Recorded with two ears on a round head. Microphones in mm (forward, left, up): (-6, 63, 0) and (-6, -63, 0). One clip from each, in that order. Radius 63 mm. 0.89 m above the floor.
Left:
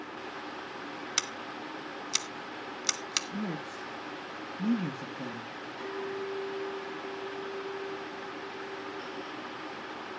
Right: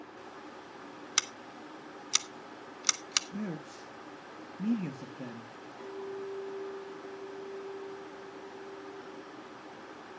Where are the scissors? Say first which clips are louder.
Right 1 dB; 15° right (ahead or behind), 0.6 m.